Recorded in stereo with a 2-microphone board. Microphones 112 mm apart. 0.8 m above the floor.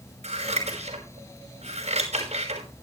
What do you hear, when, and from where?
0.2 s scissors: 80° right, 5 m